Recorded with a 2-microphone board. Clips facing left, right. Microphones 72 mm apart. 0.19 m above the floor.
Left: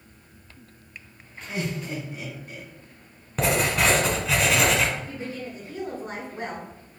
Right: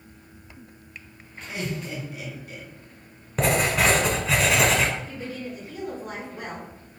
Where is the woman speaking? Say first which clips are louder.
Even; 30° left (ahead or behind), 2.5 m.